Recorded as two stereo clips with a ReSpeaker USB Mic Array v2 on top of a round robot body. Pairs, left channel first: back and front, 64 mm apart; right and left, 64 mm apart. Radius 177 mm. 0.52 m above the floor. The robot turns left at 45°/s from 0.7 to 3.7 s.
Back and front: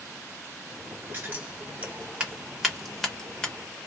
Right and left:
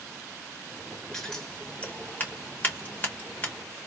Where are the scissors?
15° right, 1.4 m; by 3.5 s 125° right, 1.4 m.